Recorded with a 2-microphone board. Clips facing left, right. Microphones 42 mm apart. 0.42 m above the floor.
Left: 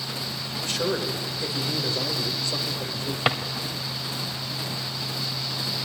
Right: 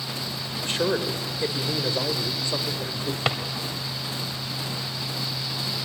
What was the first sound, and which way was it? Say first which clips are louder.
A man speaking: right 2 dB; 35° right (ahead or behind).